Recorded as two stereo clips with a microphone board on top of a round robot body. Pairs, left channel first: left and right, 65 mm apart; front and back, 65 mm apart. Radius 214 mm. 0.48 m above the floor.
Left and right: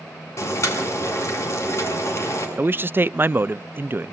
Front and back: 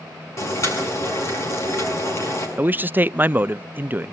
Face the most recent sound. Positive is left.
turn(degrees=-130)